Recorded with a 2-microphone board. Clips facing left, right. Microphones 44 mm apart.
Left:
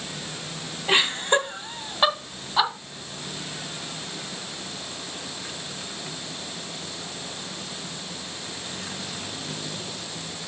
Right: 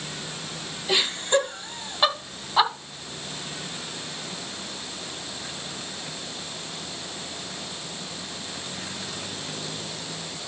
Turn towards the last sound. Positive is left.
turn(degrees=-10)  # may be behind; listen again after turning